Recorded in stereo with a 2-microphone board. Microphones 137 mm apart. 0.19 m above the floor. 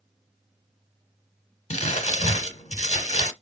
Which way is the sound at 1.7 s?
55° left (ahead or behind).